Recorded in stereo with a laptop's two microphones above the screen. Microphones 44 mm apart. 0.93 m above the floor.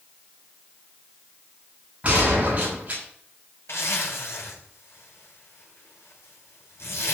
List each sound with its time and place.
2.0 s a gunshot: 35° right (ahead or behind), 6.5 m
3.7 s a zipper: 75° left (ahead or behind), 4.5 m